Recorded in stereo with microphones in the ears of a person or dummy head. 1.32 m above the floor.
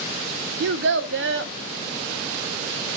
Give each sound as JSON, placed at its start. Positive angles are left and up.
{"t": 0.6, "sound": "a child speaking", "side_deg": -65, "distance_m": 0.5}